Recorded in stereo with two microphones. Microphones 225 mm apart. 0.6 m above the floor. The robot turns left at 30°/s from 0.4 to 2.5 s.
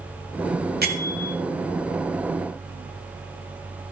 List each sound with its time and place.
0.8 s a bell: 45° right (ahead or behind), 1.3 m; by 1.4 s 60° right (ahead or behind), 1.3 m